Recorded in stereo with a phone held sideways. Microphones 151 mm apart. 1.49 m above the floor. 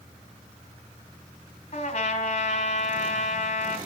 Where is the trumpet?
50° left (ahead or behind), 3 m.